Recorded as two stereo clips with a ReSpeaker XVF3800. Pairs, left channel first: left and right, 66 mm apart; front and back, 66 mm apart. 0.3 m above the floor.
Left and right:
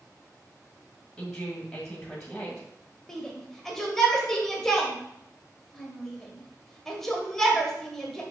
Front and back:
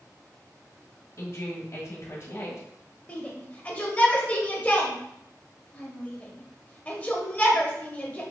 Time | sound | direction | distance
1.2 | a woman speaking | 15° left | 1.5 m
3.1 | a shout | 20° left | 0.9 m